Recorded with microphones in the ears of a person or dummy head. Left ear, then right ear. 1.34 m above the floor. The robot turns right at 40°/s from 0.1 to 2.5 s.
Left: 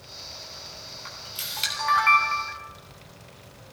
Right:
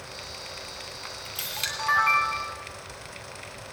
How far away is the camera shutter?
About 2.5 m.